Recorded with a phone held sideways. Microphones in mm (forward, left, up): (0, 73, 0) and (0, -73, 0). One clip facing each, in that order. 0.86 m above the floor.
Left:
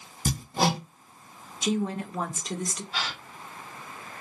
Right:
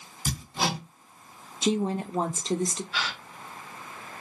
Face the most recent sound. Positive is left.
turn(degrees=40)  # may be behind; listen again after turning